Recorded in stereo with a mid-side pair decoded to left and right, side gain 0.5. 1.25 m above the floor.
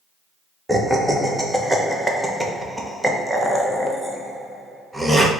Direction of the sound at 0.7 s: 5° right.